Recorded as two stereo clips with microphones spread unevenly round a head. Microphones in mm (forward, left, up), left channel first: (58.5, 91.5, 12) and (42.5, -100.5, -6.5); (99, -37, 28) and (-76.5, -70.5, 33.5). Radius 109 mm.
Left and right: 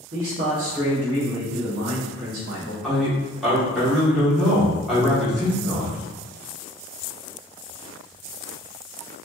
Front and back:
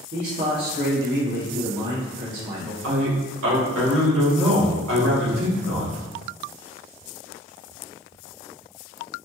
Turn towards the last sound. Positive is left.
turn(degrees=175)